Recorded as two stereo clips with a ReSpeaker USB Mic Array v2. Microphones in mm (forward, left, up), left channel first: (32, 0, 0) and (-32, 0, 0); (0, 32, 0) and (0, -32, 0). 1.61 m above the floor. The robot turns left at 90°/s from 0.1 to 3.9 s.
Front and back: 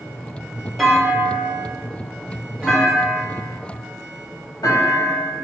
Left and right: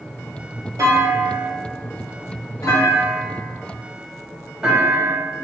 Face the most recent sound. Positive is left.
turn(degrees=-5)